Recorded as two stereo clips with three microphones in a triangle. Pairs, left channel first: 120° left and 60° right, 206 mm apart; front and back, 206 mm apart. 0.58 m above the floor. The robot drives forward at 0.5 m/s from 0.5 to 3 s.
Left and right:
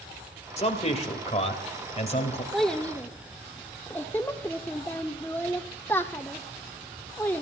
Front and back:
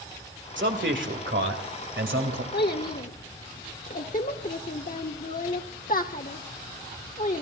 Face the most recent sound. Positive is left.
turn(degrees=40)